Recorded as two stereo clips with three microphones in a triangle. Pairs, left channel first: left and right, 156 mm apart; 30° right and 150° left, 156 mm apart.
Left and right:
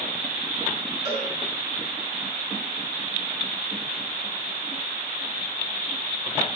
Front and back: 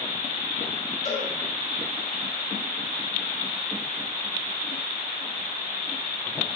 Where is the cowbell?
50° right, 2.5 m.